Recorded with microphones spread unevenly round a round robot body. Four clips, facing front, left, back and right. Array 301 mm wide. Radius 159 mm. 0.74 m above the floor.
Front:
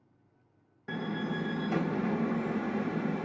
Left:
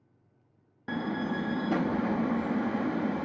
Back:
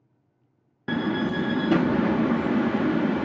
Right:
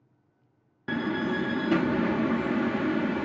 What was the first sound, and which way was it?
A door slam, 160° right.